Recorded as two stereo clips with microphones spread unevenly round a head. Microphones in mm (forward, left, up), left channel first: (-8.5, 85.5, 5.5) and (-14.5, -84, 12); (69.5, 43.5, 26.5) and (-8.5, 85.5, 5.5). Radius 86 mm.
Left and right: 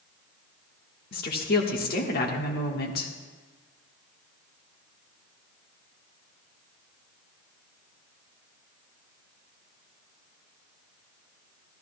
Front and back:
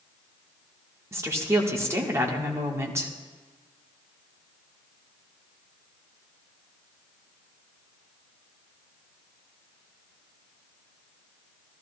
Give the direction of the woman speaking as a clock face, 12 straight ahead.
9 o'clock.